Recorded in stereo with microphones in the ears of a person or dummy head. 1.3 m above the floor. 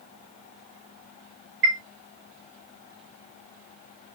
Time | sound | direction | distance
1.6 | a chime | 50° right (ahead or behind) | 0.8 m